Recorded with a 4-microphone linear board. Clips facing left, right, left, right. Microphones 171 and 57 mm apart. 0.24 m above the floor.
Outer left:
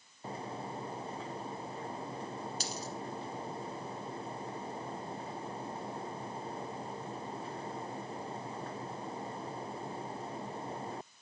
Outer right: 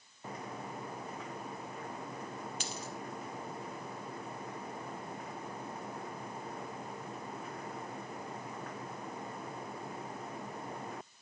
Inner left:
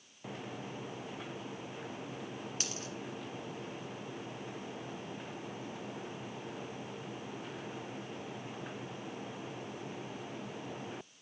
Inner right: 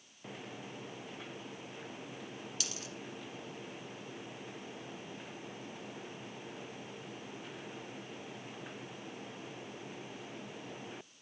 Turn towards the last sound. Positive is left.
turn(degrees=40)  # may be behind; listen again after turning